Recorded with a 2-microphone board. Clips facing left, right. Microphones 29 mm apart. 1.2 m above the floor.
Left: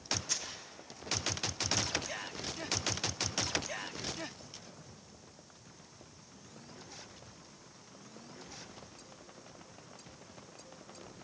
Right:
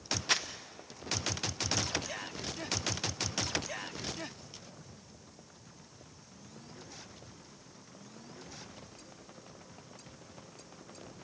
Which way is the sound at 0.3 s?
60° right (ahead or behind).